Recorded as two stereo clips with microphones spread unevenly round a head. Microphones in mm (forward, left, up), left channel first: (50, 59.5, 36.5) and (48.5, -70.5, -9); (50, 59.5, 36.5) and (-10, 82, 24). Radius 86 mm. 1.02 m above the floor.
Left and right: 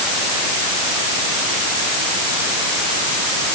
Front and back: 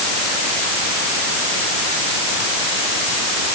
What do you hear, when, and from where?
Only background noise.